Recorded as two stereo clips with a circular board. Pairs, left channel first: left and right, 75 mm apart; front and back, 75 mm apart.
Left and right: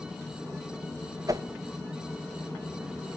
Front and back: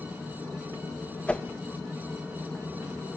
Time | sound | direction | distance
1.3 | a whoosh | 75° right | 0.7 m